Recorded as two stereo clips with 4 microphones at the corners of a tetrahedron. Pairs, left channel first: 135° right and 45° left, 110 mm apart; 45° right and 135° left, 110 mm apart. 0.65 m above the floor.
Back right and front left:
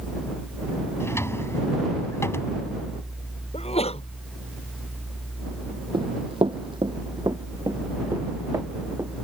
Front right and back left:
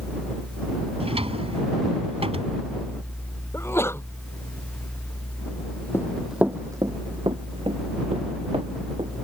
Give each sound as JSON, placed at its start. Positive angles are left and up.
{"t": 1.0, "sound": "a drawer", "azimuth_deg": 160}
{"t": 3.5, "sound": "a sneeze", "azimuth_deg": -110}
{"t": 5.9, "sound": "running footsteps", "azimuth_deg": 15}